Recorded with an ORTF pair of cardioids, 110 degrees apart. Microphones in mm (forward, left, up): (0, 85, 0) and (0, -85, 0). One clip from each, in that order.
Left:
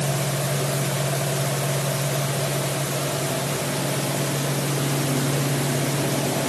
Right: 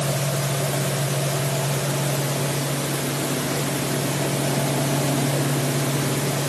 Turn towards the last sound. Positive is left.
No sound to turn to.